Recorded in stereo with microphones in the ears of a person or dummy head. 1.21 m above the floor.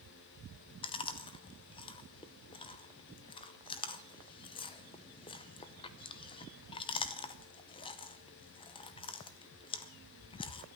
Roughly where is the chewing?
Left.